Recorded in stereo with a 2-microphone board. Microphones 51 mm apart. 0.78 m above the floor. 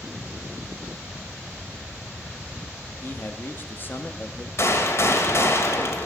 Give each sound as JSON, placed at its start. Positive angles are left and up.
{"t": 3.0, "sound": "a man speaking", "side_deg": 40, "distance_m": 0.7}
{"t": 4.6, "sound": "a gunshot", "side_deg": 55, "distance_m": 1.0}